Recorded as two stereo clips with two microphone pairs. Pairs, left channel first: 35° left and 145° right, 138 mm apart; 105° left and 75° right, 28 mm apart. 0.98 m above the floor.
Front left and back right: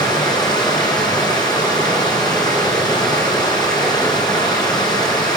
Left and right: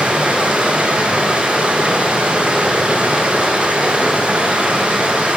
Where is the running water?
25° right, 8.5 m.